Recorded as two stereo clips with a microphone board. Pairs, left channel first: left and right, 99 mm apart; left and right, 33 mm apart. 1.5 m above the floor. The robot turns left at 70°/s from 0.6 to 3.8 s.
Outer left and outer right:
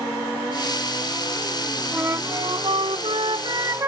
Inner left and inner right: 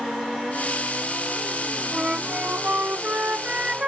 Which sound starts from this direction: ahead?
A flute, at 1.9 s.